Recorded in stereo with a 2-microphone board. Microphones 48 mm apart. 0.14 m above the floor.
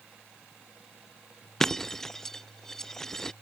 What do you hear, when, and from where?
1.6 s breaking glass: 10° left (ahead or behind)